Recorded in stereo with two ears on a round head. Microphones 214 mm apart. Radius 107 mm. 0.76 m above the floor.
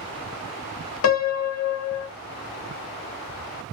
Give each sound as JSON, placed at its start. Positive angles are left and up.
{"t": 1.0, "sound": "a piano", "side_deg": 65, "distance_m": 0.6}